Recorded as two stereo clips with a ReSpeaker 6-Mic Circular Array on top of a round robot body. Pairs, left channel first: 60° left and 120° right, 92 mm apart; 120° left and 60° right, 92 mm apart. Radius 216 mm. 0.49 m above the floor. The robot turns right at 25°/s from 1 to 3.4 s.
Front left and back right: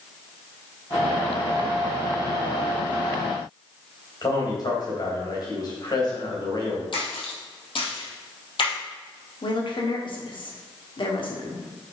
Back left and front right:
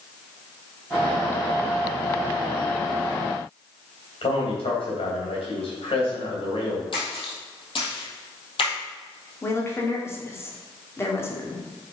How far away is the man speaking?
About 3.5 m.